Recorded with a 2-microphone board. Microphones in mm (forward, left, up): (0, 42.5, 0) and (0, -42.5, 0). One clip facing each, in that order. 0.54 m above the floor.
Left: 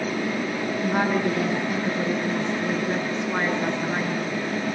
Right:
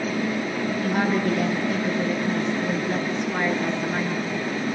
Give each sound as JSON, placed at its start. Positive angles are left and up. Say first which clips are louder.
{"t": 0.8, "sound": "a woman speaking", "louder": "left 1 dB", "side_deg": 25, "distance_m": 7.5}